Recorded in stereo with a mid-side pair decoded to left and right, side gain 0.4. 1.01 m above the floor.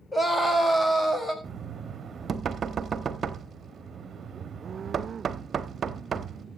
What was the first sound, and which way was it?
A scream, 15° left.